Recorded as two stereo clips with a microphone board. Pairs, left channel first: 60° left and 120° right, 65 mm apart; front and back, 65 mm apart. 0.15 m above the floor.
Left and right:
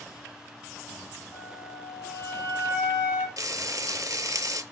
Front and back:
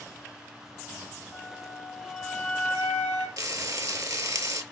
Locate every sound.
1.3 s a flute: 105° left, 3.5 m
3.4 s frying: 150° right, 0.6 m